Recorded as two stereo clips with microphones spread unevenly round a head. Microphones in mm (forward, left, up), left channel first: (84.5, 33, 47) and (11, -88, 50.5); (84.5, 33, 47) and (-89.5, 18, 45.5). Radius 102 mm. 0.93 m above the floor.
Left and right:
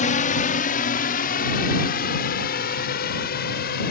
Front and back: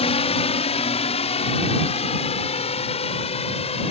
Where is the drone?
55° left; by 3.9 s 60° left.